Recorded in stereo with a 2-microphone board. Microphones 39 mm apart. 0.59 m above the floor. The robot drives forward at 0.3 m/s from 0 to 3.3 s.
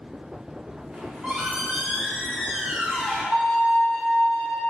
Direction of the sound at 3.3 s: 40° left (ahead or behind).